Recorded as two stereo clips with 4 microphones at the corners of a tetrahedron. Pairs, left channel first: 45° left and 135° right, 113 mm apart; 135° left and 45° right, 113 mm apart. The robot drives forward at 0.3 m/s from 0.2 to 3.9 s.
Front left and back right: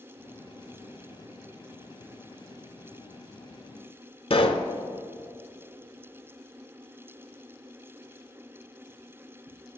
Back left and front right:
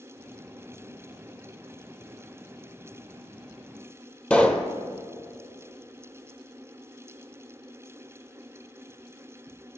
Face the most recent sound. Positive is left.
turn(degrees=60)